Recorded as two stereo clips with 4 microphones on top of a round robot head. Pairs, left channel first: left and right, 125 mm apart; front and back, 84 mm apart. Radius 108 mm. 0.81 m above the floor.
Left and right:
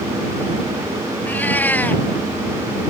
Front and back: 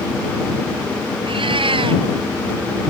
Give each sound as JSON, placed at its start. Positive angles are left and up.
{"t": 1.2, "sound": "a cat meowing", "azimuth_deg": 165}